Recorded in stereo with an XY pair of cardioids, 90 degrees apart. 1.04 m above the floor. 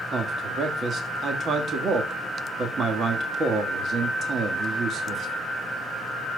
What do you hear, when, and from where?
0.1 s a man speaking: 60° right, 1.6 m